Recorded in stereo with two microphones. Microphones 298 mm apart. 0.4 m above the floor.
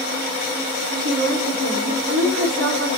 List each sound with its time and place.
1.0 s a woman speaking: 35° right (ahead or behind), 4.5 m